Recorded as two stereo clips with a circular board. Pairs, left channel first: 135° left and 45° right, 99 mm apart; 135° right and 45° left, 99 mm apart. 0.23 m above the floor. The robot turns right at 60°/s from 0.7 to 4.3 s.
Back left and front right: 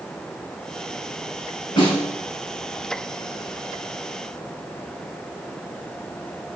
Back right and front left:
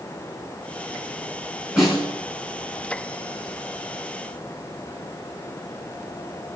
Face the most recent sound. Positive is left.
turn(degrees=-80)